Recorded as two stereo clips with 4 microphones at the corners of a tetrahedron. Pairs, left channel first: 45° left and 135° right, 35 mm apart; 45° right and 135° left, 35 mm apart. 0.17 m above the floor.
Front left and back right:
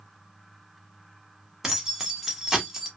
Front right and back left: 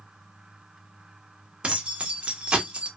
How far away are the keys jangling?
About 0.8 m.